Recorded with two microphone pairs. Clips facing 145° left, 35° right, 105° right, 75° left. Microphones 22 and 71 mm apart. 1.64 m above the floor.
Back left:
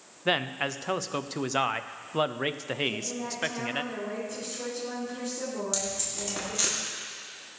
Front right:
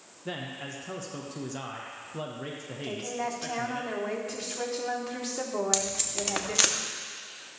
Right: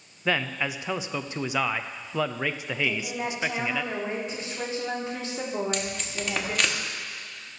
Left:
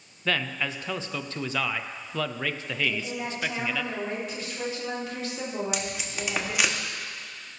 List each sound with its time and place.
0.2 s a man speaking: straight behind, 0.7 m
2.8 s a woman speaking: 40° right, 3.5 m
5.7 s tape being pulled: 5° right, 1.5 m